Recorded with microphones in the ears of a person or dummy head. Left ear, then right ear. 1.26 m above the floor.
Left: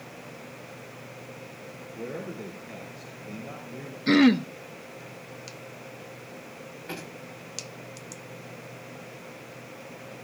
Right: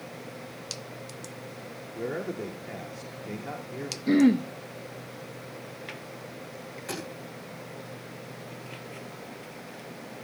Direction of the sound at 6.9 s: 80° right.